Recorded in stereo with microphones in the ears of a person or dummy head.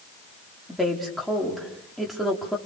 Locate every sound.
0.7 s a woman speaking: centre (ahead or behind), 5.5 m